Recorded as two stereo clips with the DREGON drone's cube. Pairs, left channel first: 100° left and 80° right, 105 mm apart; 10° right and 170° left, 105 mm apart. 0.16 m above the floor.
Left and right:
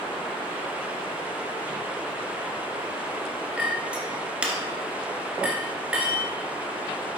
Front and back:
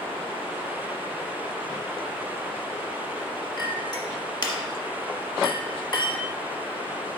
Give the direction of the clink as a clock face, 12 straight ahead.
12 o'clock.